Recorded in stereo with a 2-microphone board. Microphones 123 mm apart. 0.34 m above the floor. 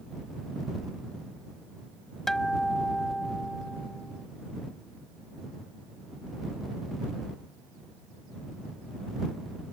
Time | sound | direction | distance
2.3 | a guitar | 5° left (ahead or behind) | ?